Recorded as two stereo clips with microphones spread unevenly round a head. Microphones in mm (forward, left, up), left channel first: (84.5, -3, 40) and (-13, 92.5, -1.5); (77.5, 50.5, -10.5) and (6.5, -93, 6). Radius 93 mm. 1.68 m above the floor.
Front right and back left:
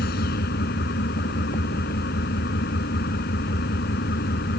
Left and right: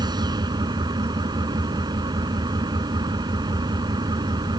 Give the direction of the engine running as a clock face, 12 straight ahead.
2 o'clock.